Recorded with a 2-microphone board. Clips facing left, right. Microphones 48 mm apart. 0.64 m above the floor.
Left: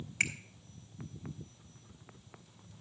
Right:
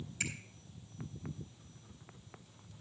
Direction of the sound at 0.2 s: 60° left (ahead or behind).